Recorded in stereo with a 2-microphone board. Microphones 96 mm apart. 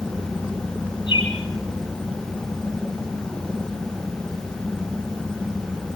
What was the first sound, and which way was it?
A bird, 60° left (ahead or behind).